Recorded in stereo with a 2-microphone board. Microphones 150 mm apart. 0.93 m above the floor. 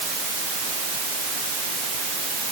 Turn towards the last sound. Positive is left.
No sound to turn to.